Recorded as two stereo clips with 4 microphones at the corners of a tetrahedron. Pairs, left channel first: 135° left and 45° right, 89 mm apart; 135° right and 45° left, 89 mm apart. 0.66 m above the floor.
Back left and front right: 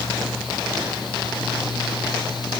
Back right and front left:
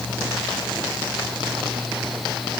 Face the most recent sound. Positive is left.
No sound to turn to.